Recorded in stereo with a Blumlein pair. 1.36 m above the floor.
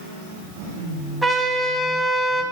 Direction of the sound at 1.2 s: 5° right.